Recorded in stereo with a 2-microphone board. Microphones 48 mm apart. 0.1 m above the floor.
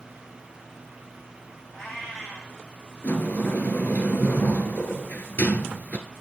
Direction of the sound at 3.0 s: 35° left (ahead or behind).